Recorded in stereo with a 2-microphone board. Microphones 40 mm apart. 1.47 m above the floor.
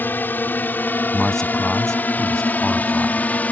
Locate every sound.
0.0 s a drone: 50° left (ahead or behind); by 3.5 s 40° left (ahead or behind)
1.1 s a man speaking: 15° left (ahead or behind)